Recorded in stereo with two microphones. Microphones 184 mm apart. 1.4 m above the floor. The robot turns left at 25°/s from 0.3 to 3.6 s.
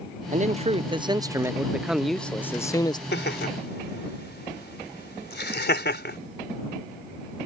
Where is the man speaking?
135° right; by 3.0 s 155° left.